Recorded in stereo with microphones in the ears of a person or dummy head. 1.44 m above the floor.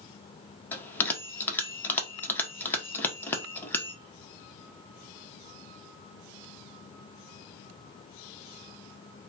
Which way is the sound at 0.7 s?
15° left (ahead or behind).